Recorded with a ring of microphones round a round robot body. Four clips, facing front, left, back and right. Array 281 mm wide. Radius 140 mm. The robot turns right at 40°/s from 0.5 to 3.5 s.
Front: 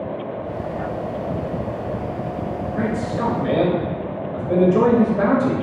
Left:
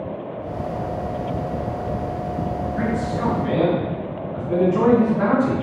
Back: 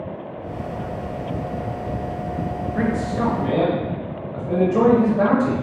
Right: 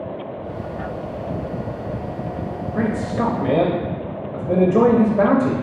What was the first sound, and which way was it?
A man speaking, 105° right.